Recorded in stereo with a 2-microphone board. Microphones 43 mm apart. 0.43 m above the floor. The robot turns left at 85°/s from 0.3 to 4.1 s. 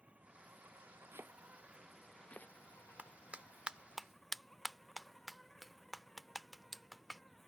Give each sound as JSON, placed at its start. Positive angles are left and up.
{"t": 0.0, "sound": "an insect", "azimuth_deg": -30}
{"t": 1.1, "sound": "chopping", "side_deg": -70}
{"t": 3.0, "sound": "a clap", "side_deg": -35}